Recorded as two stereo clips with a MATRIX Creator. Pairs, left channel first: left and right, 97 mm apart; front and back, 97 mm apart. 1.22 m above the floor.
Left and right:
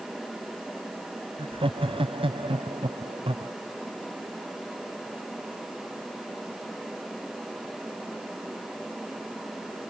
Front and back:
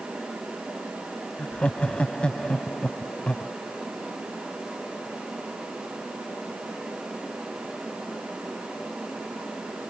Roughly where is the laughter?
Right.